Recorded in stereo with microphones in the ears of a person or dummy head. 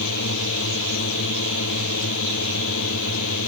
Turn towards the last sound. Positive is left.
turn(degrees=75)  # may be behind; listen again after turning